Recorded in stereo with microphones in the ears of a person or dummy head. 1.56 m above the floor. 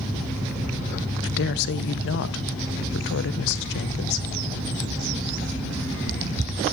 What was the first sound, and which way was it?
A woman speaking, 55° left (ahead or behind).